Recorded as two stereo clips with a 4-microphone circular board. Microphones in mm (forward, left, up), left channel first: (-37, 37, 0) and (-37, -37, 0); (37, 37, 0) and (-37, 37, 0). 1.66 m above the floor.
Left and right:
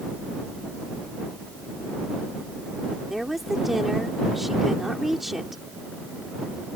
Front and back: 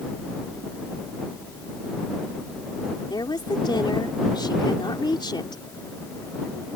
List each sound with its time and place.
3.1 s a woman speaking: 5° right